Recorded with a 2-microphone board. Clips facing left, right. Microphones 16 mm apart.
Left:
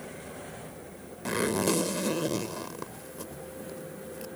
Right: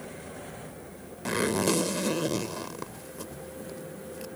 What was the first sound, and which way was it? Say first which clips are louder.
A zipper: right 1 dB; 10° right (ahead or behind).